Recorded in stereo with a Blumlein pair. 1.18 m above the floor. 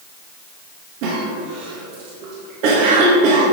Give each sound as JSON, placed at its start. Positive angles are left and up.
{"t": 1.0, "sound": "a cough", "azimuth_deg": -45, "distance_m": 2.0}